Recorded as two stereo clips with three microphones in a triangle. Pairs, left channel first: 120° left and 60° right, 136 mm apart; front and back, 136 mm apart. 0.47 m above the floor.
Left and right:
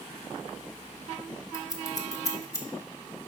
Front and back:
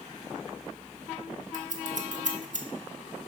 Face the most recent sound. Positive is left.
turn(degrees=180)